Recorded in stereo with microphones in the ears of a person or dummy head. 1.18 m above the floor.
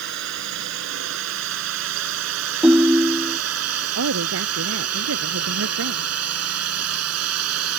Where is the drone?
65° right (ahead or behind); by 7.8 s 85° right.